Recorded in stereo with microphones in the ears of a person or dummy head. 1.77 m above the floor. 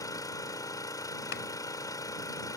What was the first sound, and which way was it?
An engine running, 25° left (ahead or behind).